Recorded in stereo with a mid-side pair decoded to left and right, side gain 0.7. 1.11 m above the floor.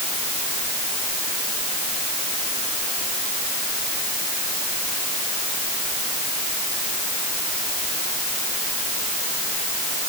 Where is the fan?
I don't hear a fan.